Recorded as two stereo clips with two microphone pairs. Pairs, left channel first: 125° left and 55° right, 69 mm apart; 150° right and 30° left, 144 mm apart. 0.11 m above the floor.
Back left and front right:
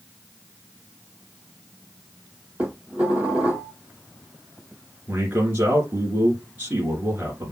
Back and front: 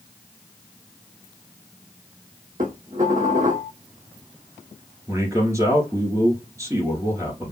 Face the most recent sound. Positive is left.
turn(degrees=-20)